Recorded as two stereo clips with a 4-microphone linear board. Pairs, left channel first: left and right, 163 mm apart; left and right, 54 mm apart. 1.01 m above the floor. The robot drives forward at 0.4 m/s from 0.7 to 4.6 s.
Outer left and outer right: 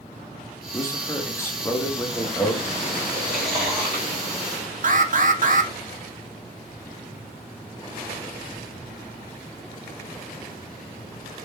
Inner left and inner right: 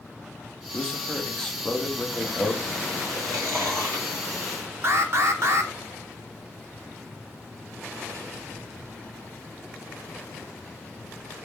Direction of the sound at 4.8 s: 55° right (ahead or behind).